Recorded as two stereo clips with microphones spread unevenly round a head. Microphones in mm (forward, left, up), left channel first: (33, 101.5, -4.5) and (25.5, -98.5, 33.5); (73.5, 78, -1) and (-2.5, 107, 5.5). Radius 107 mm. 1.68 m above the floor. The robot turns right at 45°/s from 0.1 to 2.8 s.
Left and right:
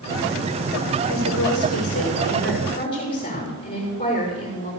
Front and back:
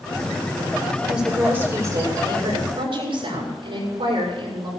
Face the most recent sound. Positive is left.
turn(degrees=150)